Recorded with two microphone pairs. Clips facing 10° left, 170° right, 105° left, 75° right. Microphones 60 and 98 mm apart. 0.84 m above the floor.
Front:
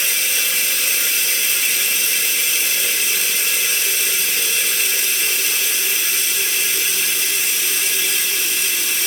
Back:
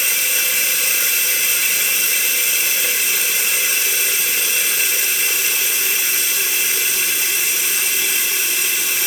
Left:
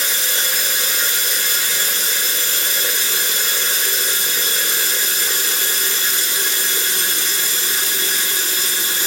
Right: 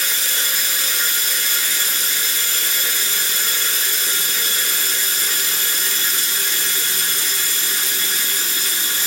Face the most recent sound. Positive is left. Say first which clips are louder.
# back 1 dB, left 2 dB
turn(degrees=105)